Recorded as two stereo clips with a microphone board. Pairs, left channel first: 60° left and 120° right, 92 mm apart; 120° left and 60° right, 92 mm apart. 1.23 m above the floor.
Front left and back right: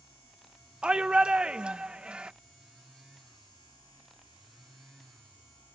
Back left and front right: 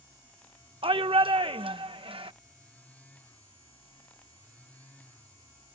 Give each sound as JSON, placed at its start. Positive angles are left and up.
{"t": 0.8, "sound": "a shout", "azimuth_deg": -40}